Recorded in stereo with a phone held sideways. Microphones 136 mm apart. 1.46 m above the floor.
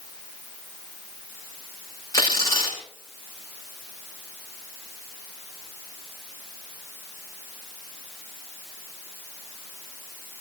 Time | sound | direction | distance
2.1 | tearing paper | 20° left (ahead or behind) | 6.5 m